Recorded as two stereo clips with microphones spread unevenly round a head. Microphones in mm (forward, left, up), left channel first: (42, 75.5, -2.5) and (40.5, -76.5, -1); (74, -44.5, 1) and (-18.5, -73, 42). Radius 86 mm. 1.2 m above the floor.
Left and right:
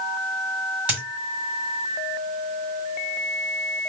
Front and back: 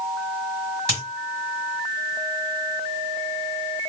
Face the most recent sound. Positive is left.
turn(degrees=-170)